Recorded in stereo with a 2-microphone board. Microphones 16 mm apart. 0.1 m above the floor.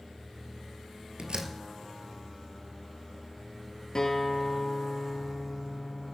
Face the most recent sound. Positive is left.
turn(degrees=40)  # may be behind; listen again after turning